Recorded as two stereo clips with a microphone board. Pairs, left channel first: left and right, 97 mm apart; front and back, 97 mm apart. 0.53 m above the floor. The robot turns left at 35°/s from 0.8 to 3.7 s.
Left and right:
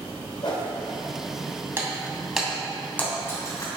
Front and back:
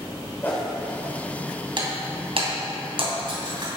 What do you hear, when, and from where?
0.4 s a whoosh: 70° left, 2.5 m
1.8 s breaking glass: 155° right, 2.5 m; by 3.7 s 140° left, 2.5 m